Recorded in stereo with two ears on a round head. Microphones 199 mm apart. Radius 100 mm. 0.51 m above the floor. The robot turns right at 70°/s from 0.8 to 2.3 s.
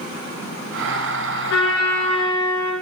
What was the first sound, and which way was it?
A trumpet, 105° left.